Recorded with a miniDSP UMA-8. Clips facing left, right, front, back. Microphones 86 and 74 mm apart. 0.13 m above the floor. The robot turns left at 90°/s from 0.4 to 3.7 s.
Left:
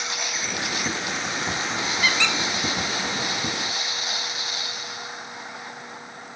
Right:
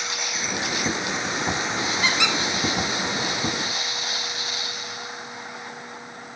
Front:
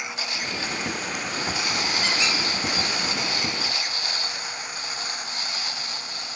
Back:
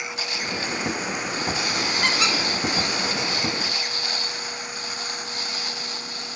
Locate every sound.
2.0 s a squeak: 145° right, 1.1 m; by 2.4 s 175° right, 1.1 m